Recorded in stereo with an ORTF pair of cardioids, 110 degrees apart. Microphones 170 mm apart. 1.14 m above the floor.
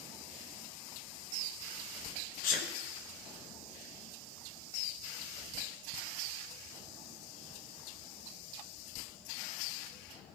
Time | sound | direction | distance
2.4 | a sneeze | 60° left | 0.8 m